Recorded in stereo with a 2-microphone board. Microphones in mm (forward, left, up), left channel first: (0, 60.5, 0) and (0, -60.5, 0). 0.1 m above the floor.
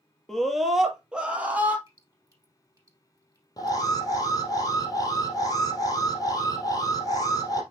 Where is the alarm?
30° left (ahead or behind), 2.5 m.